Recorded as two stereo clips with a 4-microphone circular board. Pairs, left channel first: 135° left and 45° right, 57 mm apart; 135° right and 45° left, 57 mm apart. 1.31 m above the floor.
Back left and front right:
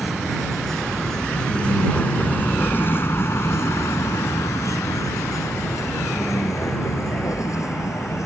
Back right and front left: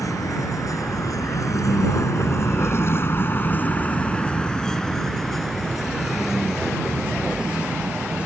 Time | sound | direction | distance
0.0 | a vehicle | 130° right | ?